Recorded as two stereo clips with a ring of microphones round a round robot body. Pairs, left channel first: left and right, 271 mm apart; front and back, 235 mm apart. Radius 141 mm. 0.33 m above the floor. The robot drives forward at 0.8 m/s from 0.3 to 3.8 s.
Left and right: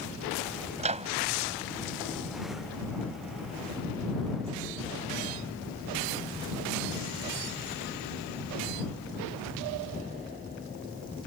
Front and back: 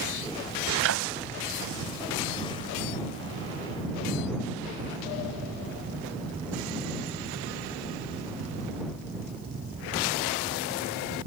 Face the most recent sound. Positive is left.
turn(degrees=-170)